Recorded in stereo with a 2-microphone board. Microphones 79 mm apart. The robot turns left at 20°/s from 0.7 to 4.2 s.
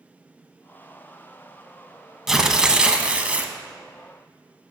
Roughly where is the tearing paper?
Centre.